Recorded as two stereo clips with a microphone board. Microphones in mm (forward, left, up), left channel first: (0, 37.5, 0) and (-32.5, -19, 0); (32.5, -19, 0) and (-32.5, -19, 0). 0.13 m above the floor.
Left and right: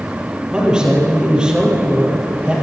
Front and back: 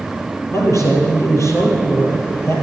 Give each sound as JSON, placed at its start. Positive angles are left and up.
{"t": 0.5, "sound": "a man speaking", "azimuth_deg": -45, "distance_m": 4.0}